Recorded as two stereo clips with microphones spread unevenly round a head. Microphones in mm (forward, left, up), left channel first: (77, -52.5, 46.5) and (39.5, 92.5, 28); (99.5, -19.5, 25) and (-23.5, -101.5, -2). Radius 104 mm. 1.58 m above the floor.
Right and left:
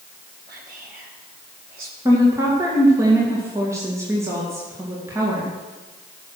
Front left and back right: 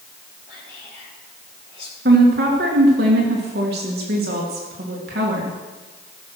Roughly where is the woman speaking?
Behind.